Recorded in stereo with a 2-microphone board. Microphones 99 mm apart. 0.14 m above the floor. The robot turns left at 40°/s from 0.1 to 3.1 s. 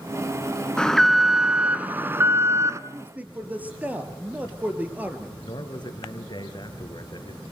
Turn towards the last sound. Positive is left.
turn(degrees=50)  # may be behind; listen again after turning